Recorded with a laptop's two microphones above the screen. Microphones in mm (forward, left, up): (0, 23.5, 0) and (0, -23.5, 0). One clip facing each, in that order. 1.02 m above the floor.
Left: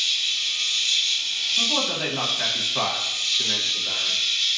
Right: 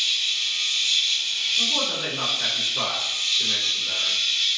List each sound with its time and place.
0.0 s an insect: 20° right (ahead or behind), 0.9 m
1.6 s a man speaking: 65° left (ahead or behind), 0.9 m